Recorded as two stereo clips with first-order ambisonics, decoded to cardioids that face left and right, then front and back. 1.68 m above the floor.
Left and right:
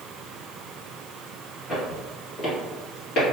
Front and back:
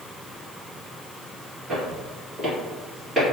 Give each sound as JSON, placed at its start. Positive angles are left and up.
{"t": 1.7, "sound": "footsteps", "azimuth_deg": 145, "distance_m": 1.9}